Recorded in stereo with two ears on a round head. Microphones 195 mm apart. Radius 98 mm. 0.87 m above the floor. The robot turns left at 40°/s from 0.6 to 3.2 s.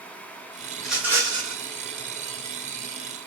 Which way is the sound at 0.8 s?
5° left.